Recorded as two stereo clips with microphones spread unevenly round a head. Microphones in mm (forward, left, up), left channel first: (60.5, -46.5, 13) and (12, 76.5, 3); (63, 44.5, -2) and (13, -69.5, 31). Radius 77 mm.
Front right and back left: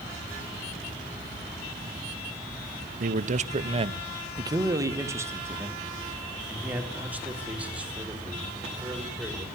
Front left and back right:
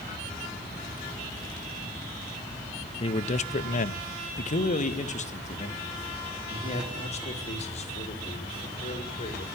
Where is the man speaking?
105° left, 0.9 m; by 9.5 s 25° left, 5.5 m.